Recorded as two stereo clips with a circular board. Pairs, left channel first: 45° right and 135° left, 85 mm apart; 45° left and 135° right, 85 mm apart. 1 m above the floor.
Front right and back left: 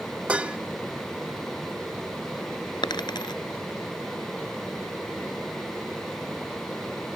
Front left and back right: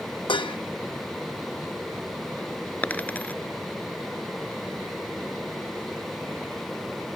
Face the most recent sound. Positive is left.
turn(degrees=-25)